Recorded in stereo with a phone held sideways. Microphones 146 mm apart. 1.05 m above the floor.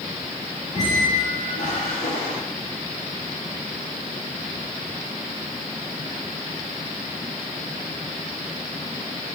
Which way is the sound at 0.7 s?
55° left (ahead or behind).